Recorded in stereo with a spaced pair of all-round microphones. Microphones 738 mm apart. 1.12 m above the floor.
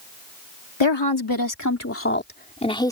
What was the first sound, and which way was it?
A woman speaking, 35° left (ahead or behind).